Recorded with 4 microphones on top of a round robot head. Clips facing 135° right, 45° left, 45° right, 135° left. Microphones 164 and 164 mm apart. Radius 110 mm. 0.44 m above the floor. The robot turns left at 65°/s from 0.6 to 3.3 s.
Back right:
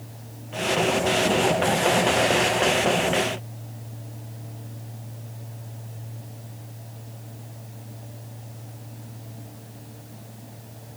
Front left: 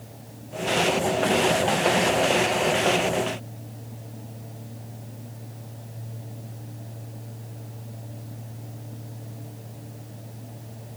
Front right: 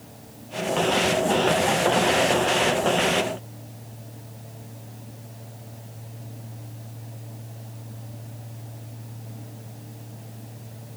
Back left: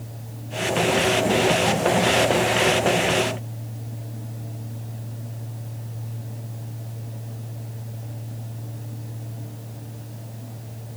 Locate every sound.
Only background noise.